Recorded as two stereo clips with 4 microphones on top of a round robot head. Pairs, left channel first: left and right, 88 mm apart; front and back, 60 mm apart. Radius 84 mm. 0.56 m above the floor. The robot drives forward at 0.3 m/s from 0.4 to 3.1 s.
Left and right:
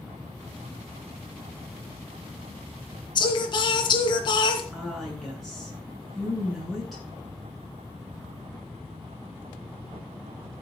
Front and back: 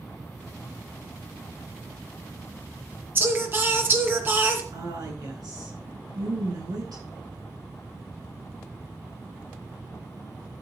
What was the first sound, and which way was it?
Singing, 125° left.